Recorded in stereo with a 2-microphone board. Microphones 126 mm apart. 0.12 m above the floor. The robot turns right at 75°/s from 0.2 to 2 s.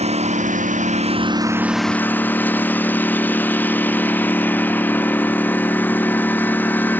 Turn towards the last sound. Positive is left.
turn(degrees=15)